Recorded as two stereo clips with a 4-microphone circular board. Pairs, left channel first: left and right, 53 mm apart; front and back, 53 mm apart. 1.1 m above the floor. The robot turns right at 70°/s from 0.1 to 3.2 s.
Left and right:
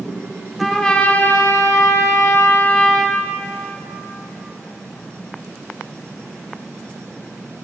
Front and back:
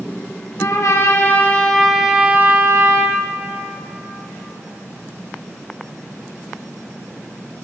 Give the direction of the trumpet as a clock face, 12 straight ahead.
12 o'clock.